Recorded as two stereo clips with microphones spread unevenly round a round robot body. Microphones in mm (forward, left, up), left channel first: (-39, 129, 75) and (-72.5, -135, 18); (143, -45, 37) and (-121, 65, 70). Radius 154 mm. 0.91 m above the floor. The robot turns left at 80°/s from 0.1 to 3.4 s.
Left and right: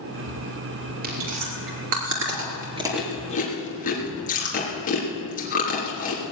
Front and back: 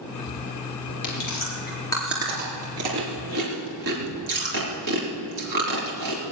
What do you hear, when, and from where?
1.0 s chewing: 30° right, 3.5 m; by 6.2 s 140° left, 3.5 m